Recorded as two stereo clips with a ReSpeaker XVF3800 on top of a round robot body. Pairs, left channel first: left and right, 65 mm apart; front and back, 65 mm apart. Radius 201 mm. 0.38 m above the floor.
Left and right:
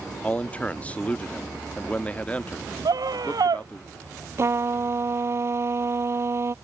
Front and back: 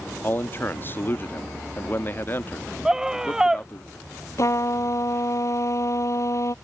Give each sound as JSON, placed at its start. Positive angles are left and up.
{"t": 0.2, "sound": "a man speaking", "azimuth_deg": 30}
{"t": 2.9, "sound": "a scream", "azimuth_deg": -100}
{"t": 4.4, "sound": "a trumpet", "azimuth_deg": -40}